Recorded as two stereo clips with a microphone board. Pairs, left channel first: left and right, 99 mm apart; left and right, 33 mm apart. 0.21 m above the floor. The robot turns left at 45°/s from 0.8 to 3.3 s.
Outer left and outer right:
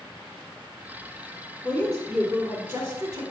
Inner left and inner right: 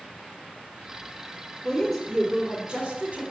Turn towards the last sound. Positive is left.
turn(degrees=-55)